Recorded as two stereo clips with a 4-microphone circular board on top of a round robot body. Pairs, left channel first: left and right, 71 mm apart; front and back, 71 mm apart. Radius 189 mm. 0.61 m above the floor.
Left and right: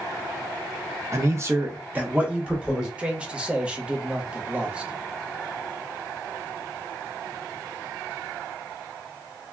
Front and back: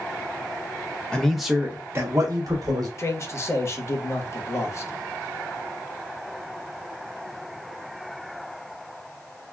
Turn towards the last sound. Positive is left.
turn(degrees=-20)